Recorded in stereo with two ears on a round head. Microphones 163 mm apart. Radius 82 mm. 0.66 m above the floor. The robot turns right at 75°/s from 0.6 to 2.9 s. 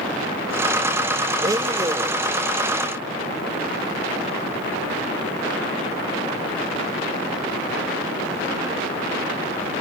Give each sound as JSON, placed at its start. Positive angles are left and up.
{"t": 1.4, "sound": "a blender", "side_deg": -20, "distance_m": 0.8}